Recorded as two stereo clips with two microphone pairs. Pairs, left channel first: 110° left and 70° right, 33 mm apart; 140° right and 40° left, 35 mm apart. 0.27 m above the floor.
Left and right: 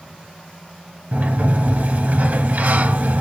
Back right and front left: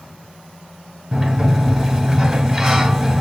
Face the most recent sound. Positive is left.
turn(degrees=-35)